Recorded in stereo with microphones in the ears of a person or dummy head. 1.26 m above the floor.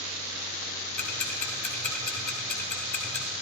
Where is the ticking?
10° left (ahead or behind), 1.6 m.